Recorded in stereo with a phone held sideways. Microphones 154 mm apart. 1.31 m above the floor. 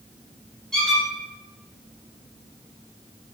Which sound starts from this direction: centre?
A squeak, at 0.7 s.